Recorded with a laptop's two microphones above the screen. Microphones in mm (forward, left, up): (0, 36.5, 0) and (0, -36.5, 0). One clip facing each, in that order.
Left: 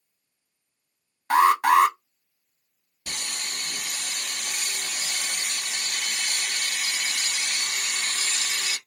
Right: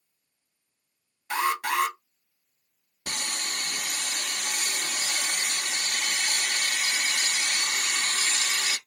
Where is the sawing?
45° right (ahead or behind), 0.8 m.